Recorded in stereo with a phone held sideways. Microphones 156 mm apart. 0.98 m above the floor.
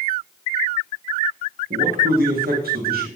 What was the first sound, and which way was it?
A man speaking, 70° right (ahead or behind).